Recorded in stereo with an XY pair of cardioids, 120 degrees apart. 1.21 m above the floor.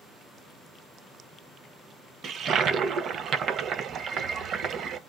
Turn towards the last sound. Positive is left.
turn(degrees=-55)